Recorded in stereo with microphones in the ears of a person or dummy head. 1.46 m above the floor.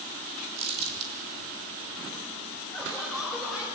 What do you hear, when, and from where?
0.6 s crumpling: 40° right (ahead or behind), 4.5 m
2.7 s laughter: centre (ahead or behind), 6.5 m